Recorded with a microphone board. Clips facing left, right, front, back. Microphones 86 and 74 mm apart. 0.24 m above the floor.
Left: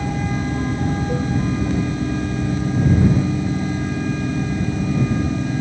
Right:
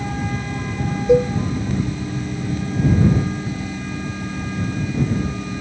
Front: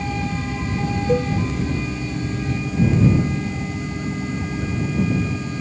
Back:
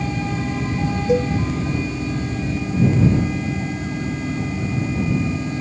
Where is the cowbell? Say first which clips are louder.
Right 8 dB, back 2 dB; 100° right.